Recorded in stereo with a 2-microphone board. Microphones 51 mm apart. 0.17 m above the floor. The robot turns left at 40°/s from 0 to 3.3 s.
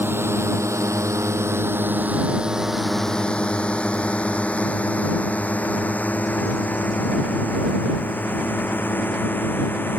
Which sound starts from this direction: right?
A drone, at 0.0 s.